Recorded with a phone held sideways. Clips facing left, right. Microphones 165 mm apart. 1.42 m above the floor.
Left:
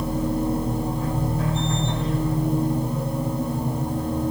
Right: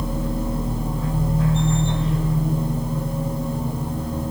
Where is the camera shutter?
No camera shutter in this recording.